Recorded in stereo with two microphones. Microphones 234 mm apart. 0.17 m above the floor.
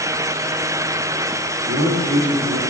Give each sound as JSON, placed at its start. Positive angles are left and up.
{"t": 1.6, "sound": "a man speaking", "side_deg": -65, "distance_m": 5.0}